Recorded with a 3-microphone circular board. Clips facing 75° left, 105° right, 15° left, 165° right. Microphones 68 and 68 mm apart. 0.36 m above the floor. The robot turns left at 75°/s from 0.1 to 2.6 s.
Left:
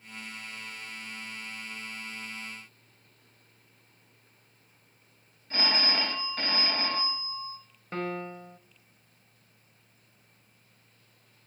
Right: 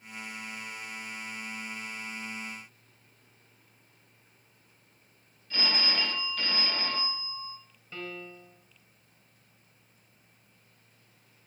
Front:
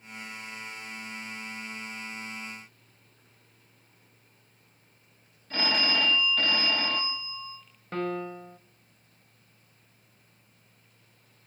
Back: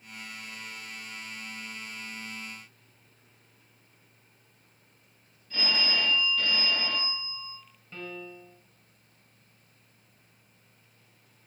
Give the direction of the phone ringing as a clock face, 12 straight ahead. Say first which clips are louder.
Left 2 dB, front 2 dB; 11 o'clock.